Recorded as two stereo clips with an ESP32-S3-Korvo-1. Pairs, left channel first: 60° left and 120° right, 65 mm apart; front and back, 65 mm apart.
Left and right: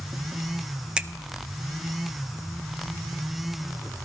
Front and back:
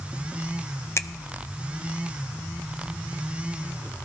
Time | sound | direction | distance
1.0 | a finger snap | 45° right | 0.5 m